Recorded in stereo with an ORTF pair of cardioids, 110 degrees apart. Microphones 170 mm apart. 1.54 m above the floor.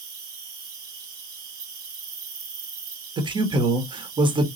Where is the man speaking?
30° right, 1.1 m.